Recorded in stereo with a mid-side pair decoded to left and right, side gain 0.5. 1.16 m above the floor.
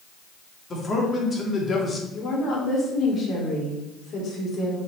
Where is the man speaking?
35° left, 3 m.